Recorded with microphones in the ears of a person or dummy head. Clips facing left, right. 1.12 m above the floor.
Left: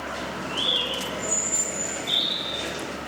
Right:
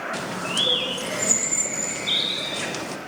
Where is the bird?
70° right (ahead or behind), 0.6 m.